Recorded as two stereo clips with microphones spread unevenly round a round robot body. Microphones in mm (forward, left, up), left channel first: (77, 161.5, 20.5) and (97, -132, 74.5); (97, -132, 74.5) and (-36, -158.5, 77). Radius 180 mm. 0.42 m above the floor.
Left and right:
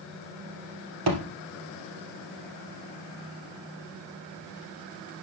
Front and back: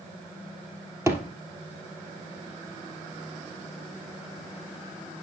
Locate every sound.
1.1 s a thud: 100° right, 2.5 m